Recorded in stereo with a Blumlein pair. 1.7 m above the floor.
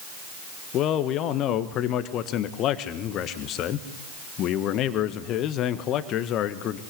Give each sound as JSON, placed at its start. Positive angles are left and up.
{"t": 0.7, "sound": "a man speaking", "azimuth_deg": 35, "distance_m": 1.6}